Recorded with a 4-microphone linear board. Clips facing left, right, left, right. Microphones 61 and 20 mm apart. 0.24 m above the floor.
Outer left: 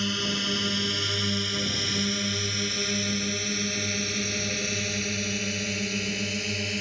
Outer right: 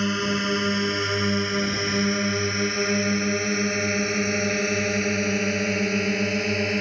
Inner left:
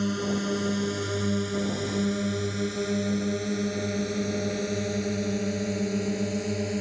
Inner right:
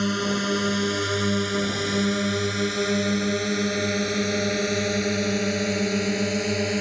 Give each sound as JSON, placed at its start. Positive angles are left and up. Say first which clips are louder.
{"t": 0.0, "sound": "a drone", "louder": "outer right 5 dB, inner right 4 dB", "side_deg": -30}